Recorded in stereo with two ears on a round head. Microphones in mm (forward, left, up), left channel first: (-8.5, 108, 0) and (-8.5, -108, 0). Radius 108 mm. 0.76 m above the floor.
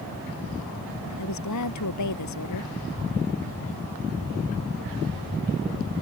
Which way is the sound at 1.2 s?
90° left.